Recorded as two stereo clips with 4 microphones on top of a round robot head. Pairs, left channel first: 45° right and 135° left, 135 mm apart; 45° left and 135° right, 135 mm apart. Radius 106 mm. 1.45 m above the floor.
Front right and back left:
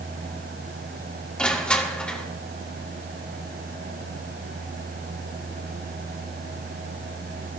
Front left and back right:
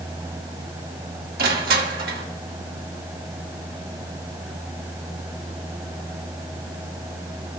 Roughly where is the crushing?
Behind right.